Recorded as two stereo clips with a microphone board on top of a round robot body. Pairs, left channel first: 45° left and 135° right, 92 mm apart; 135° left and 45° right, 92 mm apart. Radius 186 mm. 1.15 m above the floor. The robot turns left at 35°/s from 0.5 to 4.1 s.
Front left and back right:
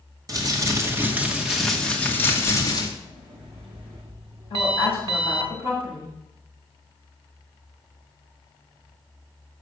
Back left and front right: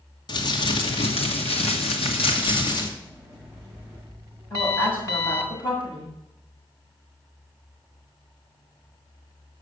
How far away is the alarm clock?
About 0.5 m.